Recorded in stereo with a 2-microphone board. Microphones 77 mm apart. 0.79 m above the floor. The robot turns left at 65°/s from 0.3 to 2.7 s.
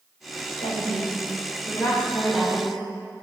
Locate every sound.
0.6 s a woman speaking: 115° left, 2.5 m; by 2.7 s 20° right, 2.5 m